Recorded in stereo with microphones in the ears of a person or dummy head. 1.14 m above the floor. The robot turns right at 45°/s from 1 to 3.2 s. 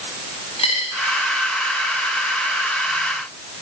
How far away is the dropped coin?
About 9.5 m.